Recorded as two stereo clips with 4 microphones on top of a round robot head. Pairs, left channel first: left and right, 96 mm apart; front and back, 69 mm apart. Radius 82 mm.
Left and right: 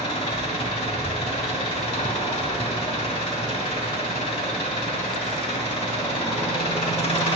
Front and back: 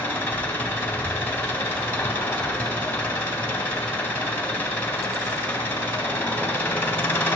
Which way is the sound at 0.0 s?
65° left.